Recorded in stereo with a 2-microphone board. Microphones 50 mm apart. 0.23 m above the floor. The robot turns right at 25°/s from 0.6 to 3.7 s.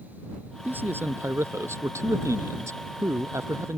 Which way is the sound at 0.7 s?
140° right.